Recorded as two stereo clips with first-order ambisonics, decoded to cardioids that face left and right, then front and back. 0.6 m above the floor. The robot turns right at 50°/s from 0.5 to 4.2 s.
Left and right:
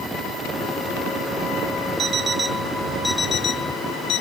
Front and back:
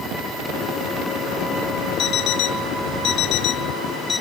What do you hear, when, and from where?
2.0 s an alarm clock: 40° right; by 4.2 s 70° left